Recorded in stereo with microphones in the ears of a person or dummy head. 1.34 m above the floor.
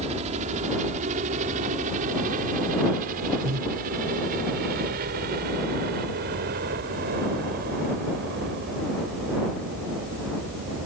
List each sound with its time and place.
0.0 s a helicopter: 35° right (ahead or behind); by 10.9 s 55° right (ahead or behind)
3.4 s breathing: 60° right (ahead or behind)